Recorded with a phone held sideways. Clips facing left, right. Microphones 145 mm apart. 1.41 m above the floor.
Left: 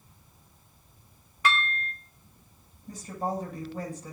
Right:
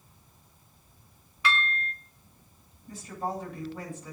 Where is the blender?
I don't hear a blender.